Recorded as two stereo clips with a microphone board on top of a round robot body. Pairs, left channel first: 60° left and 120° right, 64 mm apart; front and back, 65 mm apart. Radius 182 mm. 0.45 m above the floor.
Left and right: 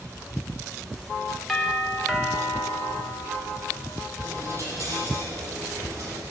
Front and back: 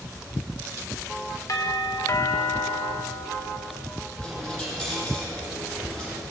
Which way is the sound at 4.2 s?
75° right.